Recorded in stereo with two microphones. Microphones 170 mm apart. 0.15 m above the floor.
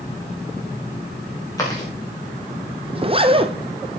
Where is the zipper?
30° right (ahead or behind), 1.0 m.